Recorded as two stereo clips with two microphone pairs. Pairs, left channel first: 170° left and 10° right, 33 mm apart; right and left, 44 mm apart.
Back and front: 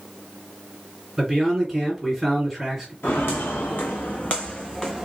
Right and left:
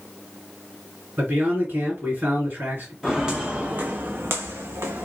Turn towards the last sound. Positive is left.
turn(degrees=90)